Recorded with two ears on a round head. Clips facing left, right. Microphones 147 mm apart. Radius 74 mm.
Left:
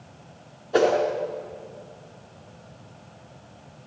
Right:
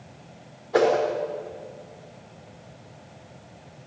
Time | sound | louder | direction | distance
0.7 | a whoosh | even | 30° left (ahead or behind) | 4 m